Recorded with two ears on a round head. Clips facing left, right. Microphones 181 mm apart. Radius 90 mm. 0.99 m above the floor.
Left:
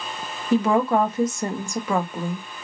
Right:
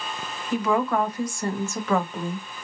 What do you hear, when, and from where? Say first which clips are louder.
0.5 s a woman speaking: left 4 dB; 30° left (ahead or behind), 0.7 m; by 2.5 s 5° left (ahead or behind), 1.0 m